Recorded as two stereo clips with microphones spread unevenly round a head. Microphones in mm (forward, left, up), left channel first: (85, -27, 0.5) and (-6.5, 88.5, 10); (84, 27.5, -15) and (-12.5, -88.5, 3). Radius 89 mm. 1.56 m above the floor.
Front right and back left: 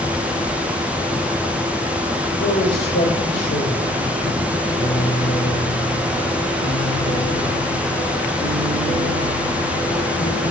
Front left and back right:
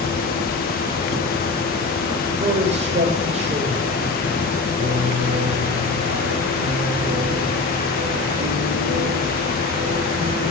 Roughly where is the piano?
Right.